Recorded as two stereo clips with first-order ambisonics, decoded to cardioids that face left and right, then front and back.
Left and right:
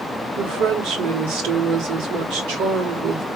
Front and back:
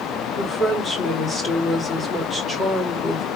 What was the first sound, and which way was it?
A woman speaking, 70° right.